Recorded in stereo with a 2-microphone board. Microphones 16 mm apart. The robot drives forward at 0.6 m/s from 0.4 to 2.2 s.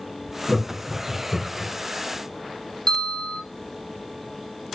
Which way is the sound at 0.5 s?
30° left (ahead or behind).